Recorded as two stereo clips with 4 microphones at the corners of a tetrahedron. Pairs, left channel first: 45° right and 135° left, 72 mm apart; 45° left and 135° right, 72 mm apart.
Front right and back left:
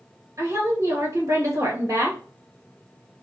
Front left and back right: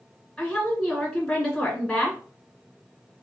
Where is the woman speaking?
130° left, 2.5 m.